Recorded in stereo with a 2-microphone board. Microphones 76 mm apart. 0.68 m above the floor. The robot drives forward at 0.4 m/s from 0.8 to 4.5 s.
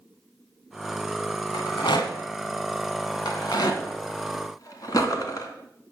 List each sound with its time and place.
1.5 s a rattle: 80° left, 1.6 m; by 5.5 s 55° left (ahead or behind), 1.9 m